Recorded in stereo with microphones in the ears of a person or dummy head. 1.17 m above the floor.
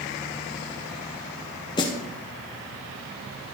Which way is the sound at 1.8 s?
20° left (ahead or behind).